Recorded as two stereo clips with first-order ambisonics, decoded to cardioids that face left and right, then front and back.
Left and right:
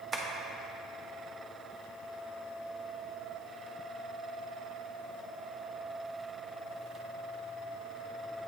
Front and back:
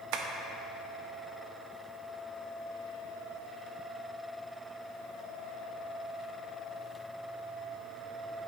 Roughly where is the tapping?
Behind.